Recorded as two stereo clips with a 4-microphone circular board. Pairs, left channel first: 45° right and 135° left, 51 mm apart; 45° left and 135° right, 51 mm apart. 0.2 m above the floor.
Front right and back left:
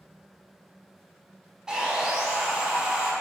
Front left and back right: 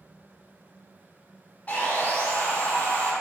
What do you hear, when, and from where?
1.7 s sawing: 70° left, 0.5 m